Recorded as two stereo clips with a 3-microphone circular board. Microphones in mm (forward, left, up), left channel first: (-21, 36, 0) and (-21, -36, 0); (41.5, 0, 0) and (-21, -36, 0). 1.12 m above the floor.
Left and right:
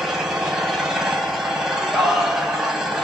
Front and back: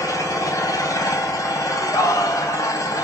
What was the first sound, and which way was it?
An engine running, 5° right.